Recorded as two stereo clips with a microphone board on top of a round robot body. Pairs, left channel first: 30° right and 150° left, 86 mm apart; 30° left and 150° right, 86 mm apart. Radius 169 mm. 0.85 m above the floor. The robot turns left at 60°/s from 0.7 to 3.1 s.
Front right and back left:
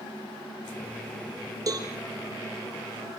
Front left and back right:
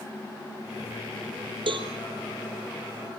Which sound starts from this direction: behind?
A cowbell, at 1.7 s.